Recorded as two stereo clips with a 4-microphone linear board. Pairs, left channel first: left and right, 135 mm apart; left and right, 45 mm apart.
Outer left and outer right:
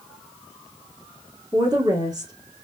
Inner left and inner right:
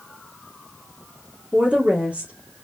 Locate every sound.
1.5 s a woman speaking: 25° right (ahead or behind), 1.3 m